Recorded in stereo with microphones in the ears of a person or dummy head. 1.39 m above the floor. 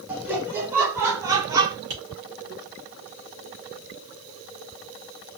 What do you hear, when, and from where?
0.1 s laughter: 10° right (ahead or behind), 1.8 m; by 1.8 s 20° right (ahead or behind), 0.9 m
1.9 s tapping: 55° right (ahead or behind), 1.2 m